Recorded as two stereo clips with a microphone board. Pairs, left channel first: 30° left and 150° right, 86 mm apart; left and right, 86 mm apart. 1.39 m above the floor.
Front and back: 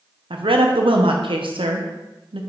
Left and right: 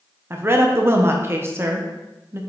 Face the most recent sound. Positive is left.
turn(degrees=-155)